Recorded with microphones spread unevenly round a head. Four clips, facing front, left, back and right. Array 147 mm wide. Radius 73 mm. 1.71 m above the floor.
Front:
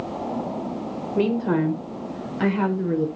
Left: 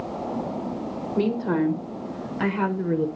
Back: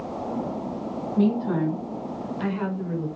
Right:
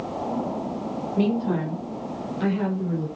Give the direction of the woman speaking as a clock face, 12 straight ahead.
12 o'clock.